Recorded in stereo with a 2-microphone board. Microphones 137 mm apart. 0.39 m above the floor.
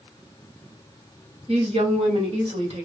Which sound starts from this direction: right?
A woman speaking, at 1.5 s.